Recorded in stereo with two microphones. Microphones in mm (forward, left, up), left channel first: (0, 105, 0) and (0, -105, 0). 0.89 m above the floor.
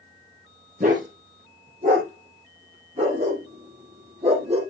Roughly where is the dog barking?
Right.